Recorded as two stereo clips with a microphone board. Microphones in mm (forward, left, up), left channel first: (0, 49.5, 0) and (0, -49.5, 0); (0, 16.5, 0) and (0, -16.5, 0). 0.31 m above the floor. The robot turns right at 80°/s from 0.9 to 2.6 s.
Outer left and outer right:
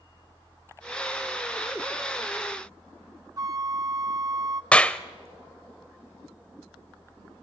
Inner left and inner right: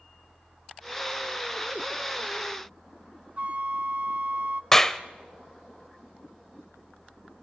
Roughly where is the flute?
Right.